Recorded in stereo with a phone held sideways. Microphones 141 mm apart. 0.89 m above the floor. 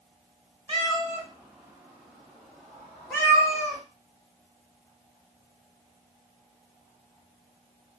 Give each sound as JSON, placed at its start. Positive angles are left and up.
{"t": 0.7, "sound": "a cat meowing", "side_deg": -35, "distance_m": 1.1}